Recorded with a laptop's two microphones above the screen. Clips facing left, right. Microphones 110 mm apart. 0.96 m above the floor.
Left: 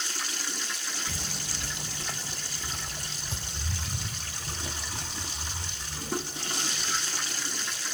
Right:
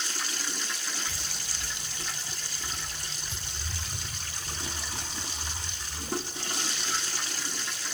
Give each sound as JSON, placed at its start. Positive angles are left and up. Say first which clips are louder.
{"t": 1.1, "sound": "footsteps", "louder": "left 3 dB", "side_deg": 40, "distance_m": 1.2}